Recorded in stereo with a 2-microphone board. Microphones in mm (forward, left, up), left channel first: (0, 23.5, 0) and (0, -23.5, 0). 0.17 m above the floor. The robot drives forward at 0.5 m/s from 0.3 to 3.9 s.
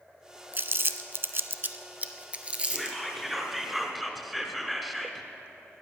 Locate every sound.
0.5 s crumpling: 45° right (ahead or behind), 0.5 m; by 3.0 s 20° right (ahead or behind), 1.1 m
2.7 s whispering: centre (ahead or behind), 1.4 m; by 5.2 s 5° right (ahead or behind), 1.0 m